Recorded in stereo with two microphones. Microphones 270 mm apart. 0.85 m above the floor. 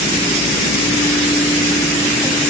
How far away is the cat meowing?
I don't hear a cat meowing.